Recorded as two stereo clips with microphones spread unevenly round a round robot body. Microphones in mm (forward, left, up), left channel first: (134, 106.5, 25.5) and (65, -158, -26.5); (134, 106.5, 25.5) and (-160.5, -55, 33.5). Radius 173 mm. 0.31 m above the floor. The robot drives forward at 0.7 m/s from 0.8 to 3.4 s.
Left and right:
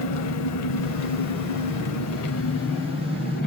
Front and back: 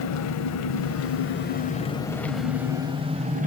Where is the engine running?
55° left, 1.4 m; by 3.5 s 140° left, 1.7 m.